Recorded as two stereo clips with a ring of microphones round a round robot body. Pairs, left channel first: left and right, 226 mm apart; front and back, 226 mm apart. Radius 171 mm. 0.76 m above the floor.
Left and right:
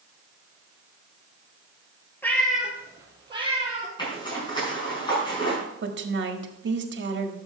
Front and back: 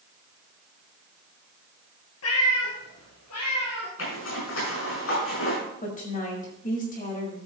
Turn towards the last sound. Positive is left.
turn(degrees=-60)